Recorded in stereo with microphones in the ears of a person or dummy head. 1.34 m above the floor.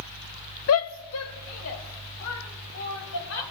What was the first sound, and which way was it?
A shout, 65° left (ahead or behind).